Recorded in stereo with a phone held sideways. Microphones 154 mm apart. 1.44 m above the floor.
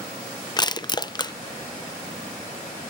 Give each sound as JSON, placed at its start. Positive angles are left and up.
{"t": 0.6, "sound": "crushing", "side_deg": 30, "distance_m": 0.6}